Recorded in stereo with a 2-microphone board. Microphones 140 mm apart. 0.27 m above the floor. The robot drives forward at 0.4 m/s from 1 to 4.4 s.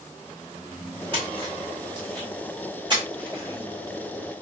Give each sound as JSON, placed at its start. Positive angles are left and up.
{"t": 1.1, "sound": "a splash", "side_deg": -35, "distance_m": 1.7}